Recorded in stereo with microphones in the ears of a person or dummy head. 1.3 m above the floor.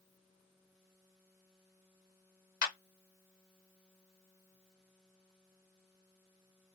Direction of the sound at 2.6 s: 55° left (ahead or behind).